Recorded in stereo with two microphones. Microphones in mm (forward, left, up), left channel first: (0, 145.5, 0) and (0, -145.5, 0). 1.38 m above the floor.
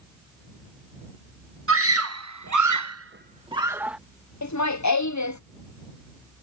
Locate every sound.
1.7 s a scream: 45° right (ahead or behind); by 4.0 s 5° right (ahead or behind)
4.4 s laughter: 70° left (ahead or behind)